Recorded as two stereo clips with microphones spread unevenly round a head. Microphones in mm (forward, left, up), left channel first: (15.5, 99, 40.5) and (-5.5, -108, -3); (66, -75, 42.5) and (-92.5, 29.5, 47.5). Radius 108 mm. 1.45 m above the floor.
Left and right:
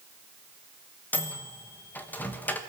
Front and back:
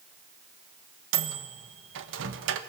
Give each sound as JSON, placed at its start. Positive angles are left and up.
{"t": 1.1, "sound": "a microwave", "azimuth_deg": 165, "distance_m": 1.3}